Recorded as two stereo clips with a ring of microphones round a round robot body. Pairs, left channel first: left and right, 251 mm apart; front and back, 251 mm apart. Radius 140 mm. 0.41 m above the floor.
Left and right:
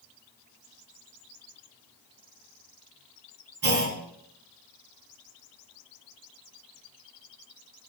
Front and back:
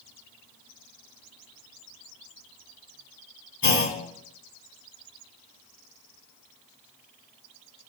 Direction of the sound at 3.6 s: 45° right.